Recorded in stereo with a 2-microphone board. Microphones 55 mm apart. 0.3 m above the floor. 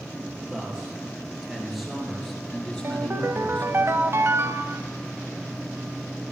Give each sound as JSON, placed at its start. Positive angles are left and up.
{"t": 0.5, "sound": "a man speaking", "side_deg": -15, "distance_m": 6.0}
{"t": 2.8, "sound": "a ringtone", "side_deg": -45, "distance_m": 0.8}